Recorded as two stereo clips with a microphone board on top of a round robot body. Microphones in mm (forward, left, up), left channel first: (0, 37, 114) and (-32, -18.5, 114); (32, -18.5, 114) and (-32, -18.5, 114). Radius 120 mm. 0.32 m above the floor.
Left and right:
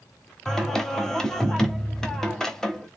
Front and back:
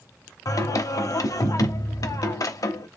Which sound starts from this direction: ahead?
Singing, at 0.5 s.